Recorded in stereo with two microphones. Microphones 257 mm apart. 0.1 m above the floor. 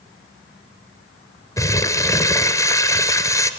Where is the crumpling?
10° left (ahead or behind), 0.9 m.